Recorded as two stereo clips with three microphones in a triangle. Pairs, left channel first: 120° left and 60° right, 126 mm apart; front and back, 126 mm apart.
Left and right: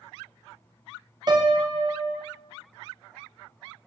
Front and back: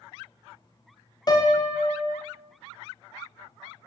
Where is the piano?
30° right, 0.7 m.